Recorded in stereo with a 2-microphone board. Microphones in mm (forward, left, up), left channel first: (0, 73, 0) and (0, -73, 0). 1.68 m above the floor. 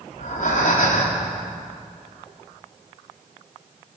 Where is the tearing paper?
No tearing paper in this recording.